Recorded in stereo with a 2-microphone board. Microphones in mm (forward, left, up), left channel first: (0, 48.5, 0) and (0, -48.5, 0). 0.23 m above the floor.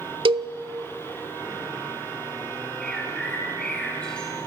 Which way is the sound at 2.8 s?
10° left (ahead or behind).